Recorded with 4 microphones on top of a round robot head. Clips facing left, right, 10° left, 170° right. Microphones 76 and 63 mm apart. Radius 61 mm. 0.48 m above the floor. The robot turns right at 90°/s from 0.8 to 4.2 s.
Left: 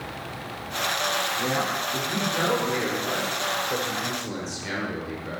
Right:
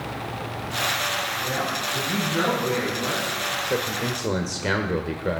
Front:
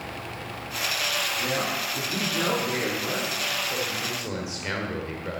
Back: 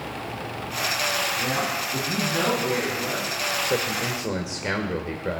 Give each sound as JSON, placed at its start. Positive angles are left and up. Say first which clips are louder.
{"t": 1.4, "sound": "a man speaking", "louder": "left 1 dB, back 2 dB", "azimuth_deg": 130, "distance_m": 6.0}
{"t": 3.6, "sound": "a man speaking", "louder": "right 2 dB, back 4 dB", "azimuth_deg": -160, "distance_m": 1.5}